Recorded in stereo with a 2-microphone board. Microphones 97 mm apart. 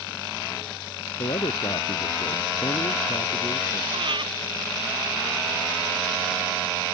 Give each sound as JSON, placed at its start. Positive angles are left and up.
{"t": 1.2, "sound": "a man speaking", "side_deg": 65}
{"t": 3.9, "sound": "breathing", "side_deg": -65}